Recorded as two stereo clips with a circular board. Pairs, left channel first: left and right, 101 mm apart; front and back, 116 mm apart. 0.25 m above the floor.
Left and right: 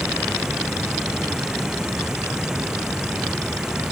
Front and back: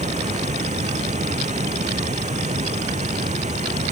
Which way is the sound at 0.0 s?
175° right.